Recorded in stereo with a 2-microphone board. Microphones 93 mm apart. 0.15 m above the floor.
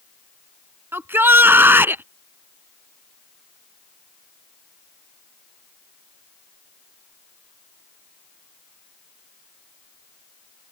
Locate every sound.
0.9 s a shout: 25° right (ahead or behind)